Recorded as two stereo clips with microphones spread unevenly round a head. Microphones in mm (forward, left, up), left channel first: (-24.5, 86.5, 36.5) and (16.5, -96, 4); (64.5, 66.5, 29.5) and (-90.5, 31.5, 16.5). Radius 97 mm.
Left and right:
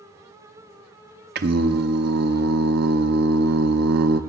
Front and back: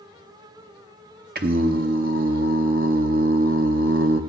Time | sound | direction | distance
1.4 | singing | 120° right | 0.6 m